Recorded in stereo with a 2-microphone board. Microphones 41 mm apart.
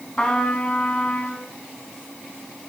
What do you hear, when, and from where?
0.2 s a trumpet: 20° left (ahead or behind), 1.7 m